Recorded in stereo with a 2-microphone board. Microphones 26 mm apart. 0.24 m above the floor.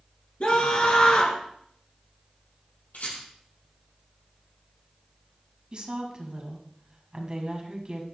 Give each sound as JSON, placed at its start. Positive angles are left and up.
{"t": 0.4, "sound": "a scream", "side_deg": 50, "distance_m": 3.5}
{"t": 2.9, "sound": "a rattle", "side_deg": 80, "distance_m": 5.0}
{"t": 5.7, "sound": "a woman speaking", "side_deg": -35, "distance_m": 1.8}